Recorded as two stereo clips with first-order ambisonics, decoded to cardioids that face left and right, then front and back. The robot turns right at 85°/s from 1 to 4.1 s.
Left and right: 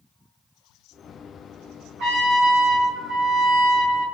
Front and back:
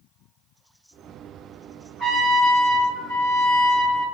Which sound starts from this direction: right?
A trumpet, at 2.0 s.